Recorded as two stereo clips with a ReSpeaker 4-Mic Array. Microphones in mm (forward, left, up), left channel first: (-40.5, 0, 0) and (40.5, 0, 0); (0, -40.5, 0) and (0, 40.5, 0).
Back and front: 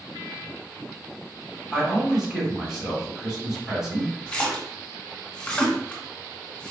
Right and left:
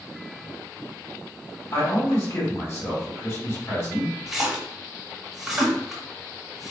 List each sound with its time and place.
1.7 s a man speaking: 80° right, 1.5 m
4.3 s a splash: 165° left, 1.0 m